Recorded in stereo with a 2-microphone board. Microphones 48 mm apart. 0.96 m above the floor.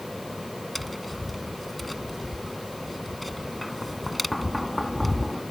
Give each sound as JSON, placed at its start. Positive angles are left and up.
{"t": 0.8, "sound": "tapping", "side_deg": 0}